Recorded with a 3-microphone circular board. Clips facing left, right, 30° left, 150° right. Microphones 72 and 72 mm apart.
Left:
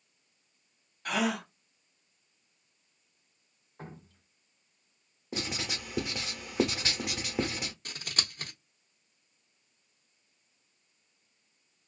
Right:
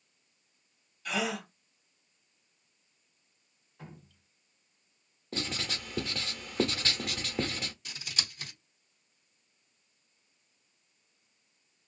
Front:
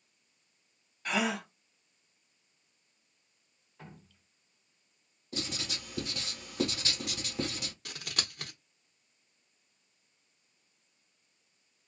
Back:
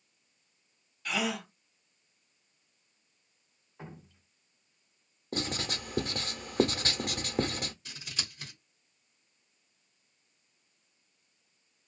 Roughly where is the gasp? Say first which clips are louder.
Left 3 dB, front 1 dB; left.